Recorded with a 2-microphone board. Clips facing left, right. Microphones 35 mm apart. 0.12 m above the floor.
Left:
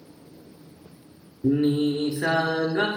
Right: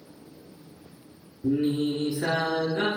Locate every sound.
1.4 s singing: 40° left (ahead or behind), 0.5 m